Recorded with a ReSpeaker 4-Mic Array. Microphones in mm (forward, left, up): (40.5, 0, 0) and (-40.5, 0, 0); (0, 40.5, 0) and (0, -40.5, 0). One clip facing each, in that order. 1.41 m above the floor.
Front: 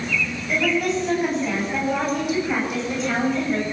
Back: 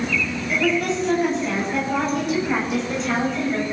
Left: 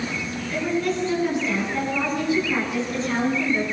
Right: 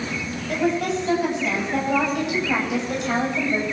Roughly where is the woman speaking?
Right.